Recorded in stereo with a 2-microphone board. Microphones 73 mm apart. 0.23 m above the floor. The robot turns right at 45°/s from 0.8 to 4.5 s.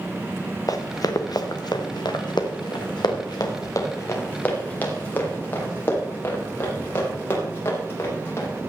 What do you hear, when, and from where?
0.7 s running footsteps: 55° left (ahead or behind), 1.4 m; by 8.5 s 30° left (ahead or behind), 6 m